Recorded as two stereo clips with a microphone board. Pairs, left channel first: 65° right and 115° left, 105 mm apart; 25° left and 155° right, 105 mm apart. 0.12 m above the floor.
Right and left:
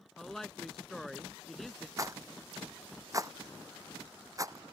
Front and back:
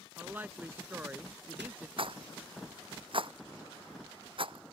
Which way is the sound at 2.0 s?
170° left.